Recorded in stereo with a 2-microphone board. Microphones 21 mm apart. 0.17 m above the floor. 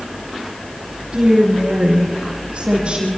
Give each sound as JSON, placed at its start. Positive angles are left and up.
{"t": 1.1, "sound": "a woman speaking", "side_deg": -55, "distance_m": 6.5}